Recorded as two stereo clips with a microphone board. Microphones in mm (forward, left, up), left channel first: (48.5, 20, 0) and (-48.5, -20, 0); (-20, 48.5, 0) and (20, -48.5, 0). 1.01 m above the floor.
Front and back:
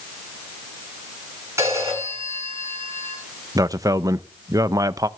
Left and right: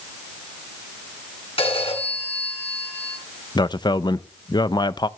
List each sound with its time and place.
1.6 s a phone ringing: 140° left, 8 m
3.5 s a man speaking: 150° left, 0.6 m